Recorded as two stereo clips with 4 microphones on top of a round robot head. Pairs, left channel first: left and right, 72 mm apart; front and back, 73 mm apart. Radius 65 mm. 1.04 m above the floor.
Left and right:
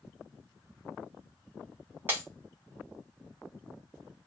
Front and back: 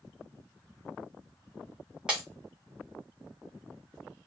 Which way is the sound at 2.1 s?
110° right.